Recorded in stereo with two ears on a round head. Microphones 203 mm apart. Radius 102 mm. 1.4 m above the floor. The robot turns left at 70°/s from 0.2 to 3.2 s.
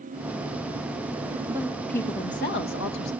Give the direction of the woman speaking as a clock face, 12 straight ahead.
5 o'clock.